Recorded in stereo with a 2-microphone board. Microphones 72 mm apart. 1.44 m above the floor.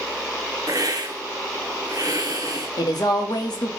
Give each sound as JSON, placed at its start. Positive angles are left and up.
{"t": 0.7, "sound": "a hiss", "side_deg": -60, "distance_m": 0.6}
{"t": 2.8, "sound": "a woman speaking", "side_deg": 70, "distance_m": 0.7}